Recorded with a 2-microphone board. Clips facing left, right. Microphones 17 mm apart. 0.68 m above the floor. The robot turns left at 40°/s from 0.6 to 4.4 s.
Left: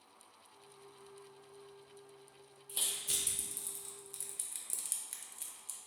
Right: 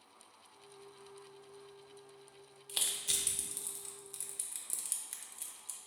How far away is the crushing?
About 0.5 m.